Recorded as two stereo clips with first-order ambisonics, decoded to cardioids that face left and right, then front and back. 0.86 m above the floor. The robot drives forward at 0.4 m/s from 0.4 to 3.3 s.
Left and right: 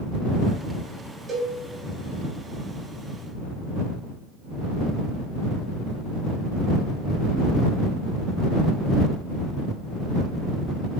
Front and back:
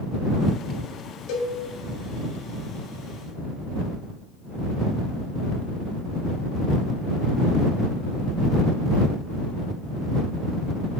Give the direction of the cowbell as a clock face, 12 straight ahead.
1 o'clock.